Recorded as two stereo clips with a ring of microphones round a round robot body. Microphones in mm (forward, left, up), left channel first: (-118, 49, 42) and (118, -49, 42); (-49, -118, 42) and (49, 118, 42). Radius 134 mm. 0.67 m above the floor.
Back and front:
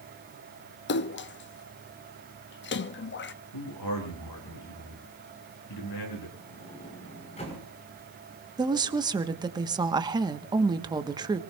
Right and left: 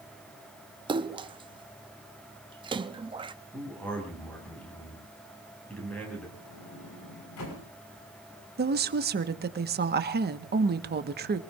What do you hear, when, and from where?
0.9 s a splash: 135° left, 0.7 m
3.5 s a man speaking: 165° left, 9.5 m
6.4 s a sliding door: 135° right, 5.5 m
8.6 s a woman speaking: 45° left, 1.2 m